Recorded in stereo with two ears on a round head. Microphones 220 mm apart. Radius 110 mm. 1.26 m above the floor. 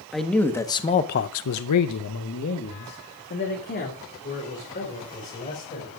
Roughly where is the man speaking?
Centre.